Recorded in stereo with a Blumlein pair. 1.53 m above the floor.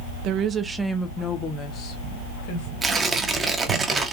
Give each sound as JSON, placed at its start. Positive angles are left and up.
{"t": 0.2, "sound": "a woman speaking", "azimuth_deg": -40, "distance_m": 0.6}
{"t": 2.8, "sound": "tearing paper", "azimuth_deg": -15, "distance_m": 0.8}